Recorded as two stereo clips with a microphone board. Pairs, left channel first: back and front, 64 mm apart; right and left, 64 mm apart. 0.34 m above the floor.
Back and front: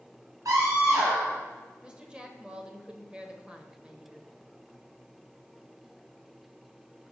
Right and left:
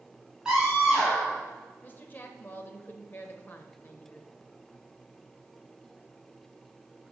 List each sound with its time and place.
0.5 s a scream: 15° left, 3 m
1.8 s a woman speaking: 60° right, 1.1 m